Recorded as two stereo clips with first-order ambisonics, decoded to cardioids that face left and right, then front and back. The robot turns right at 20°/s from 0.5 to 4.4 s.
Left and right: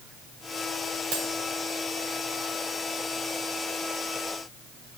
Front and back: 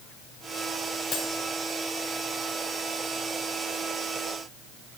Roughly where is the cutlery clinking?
Ahead right.